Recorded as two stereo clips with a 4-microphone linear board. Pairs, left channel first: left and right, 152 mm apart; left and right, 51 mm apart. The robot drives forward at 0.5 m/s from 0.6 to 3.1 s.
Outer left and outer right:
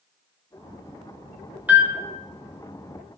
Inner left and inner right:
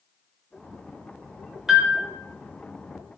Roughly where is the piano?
Centre.